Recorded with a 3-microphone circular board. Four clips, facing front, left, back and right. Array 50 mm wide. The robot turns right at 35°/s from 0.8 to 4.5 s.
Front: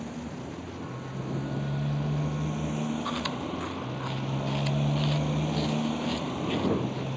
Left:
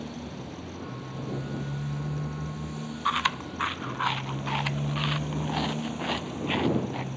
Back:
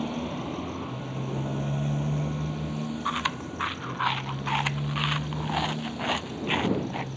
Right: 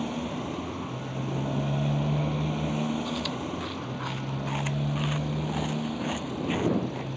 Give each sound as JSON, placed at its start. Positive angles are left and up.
{"t": 0.0, "sound": "a motorcycle", "azimuth_deg": -140}
{"t": 3.0, "sound": "chewing", "azimuth_deg": 115}